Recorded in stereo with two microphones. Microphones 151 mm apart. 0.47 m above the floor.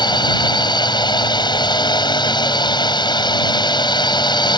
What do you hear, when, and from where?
0.0 s a drone: 30° left (ahead or behind)